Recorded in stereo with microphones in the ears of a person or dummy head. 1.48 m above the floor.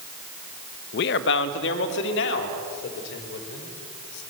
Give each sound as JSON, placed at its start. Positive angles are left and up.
{"t": 0.9, "sound": "a man speaking", "side_deg": 60, "distance_m": 1.3}